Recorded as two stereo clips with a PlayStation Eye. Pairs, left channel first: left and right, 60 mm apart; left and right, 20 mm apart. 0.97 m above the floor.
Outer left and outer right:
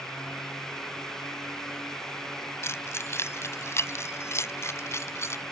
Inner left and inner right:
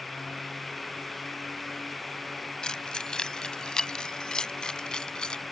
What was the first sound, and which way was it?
Keys jangling, 50° left (ahead or behind).